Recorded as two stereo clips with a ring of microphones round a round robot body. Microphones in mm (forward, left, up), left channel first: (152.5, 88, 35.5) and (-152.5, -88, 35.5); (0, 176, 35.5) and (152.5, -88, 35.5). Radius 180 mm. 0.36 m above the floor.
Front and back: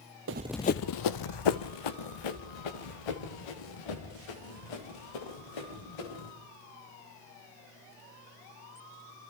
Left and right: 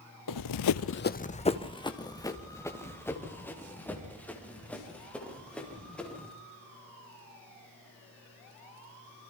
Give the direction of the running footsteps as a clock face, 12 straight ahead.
7 o'clock.